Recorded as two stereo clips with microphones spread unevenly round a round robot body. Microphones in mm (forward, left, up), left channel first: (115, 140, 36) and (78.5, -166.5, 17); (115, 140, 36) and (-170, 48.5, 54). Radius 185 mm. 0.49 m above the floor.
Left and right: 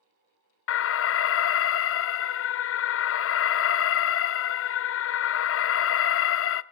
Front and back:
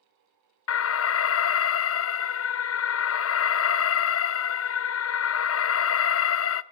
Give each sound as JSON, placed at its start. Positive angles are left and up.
{"t": 0.7, "sound": "an alarm", "azimuth_deg": 40, "distance_m": 0.6}